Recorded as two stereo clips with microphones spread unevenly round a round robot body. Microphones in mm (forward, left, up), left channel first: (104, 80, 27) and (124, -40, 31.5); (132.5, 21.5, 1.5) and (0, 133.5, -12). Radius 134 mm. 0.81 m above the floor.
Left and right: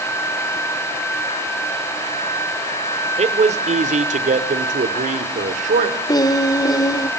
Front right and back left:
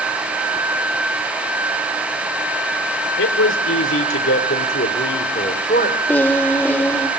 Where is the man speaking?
50° right, 2.5 m; by 6.0 s 105° right, 2.5 m.